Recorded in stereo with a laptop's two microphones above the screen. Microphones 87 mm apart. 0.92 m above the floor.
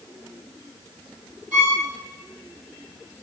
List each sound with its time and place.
1.5 s a violin: 15° right (ahead or behind), 3 m